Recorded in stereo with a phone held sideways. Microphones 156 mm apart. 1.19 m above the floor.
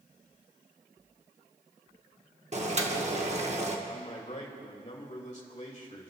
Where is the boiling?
45° right (ahead or behind), 1.3 m.